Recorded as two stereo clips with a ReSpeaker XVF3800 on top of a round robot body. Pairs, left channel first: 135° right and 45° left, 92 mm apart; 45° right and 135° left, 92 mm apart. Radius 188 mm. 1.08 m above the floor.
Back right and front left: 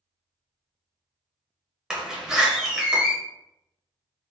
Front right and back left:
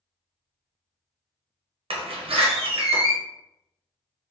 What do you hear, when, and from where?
1.9 s a door slam: 130° left, 0.8 m